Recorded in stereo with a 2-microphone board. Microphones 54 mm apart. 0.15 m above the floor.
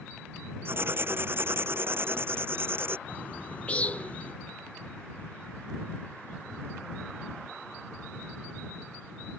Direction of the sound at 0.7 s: 45° right (ahead or behind).